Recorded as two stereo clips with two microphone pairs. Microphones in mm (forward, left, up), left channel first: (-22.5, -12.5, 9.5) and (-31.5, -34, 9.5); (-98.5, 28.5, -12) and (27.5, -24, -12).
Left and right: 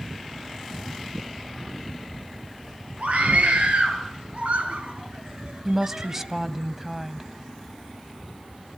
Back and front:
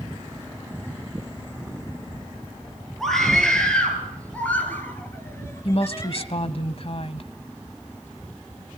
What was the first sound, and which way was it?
A scream, 115° right.